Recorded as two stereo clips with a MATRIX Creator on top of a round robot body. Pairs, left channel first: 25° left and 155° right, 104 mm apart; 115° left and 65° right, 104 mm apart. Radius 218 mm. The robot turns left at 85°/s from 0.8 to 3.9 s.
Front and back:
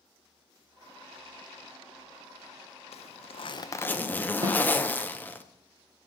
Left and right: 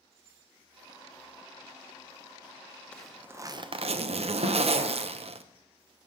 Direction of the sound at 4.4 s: 100° right.